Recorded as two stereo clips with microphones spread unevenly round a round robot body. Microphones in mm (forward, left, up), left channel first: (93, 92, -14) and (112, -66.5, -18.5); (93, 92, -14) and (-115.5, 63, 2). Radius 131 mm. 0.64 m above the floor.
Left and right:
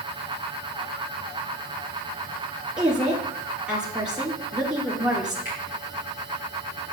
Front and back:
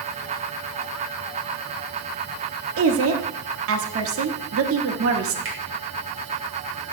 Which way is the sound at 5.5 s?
155° left.